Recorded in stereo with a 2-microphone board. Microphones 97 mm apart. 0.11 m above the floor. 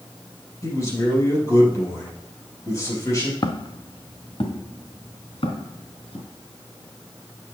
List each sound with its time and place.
0.6 s a man speaking: 35° left (ahead or behind), 4 m
3.4 s footsteps: 50° left (ahead or behind), 0.8 m; by 6.2 s 80° left, 3.5 m